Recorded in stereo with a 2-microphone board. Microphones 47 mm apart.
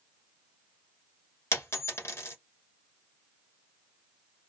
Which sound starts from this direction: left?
A dropped coin, at 1.5 s.